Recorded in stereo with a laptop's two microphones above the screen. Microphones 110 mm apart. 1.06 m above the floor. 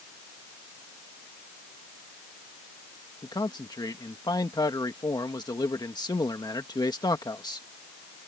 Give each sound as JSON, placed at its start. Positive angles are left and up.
{"t": 3.2, "sound": "a man speaking", "side_deg": 40}